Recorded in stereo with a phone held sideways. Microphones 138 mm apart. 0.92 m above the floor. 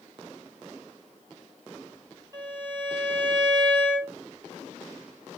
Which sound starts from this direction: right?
A violin, at 2.3 s.